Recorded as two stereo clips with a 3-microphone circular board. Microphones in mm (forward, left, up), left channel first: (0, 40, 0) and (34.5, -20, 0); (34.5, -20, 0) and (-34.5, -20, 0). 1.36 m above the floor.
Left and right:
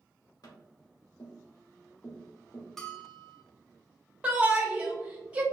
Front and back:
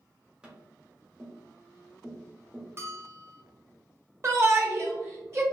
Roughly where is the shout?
Behind right.